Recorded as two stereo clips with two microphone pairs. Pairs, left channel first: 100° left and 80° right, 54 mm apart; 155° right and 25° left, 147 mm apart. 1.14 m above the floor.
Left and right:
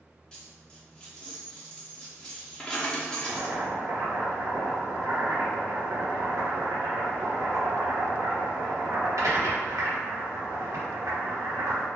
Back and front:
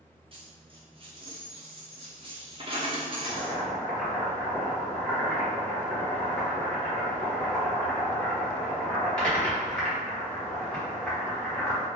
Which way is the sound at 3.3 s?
70° right.